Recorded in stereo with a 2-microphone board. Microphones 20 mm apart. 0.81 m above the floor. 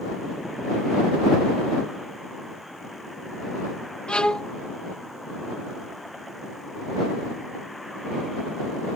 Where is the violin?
60° left (ahead or behind).